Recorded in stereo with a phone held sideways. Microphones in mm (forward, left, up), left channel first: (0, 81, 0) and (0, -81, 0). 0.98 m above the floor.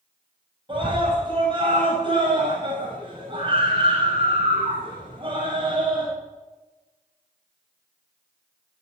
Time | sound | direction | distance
0.7 | a scream | 35° right (ahead or behind) | 6.5 m